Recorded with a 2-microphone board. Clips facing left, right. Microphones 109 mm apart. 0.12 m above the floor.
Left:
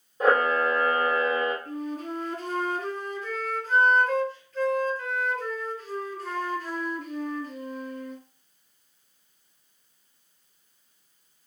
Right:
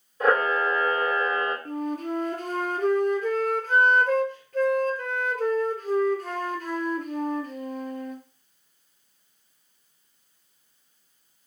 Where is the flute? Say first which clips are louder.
Right 3 dB; 50° right (ahead or behind), 0.5 m.